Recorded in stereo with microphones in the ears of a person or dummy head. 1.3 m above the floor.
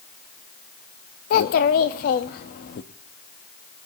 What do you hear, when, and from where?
1.3 s a child speaking: 45° left (ahead or behind), 0.9 m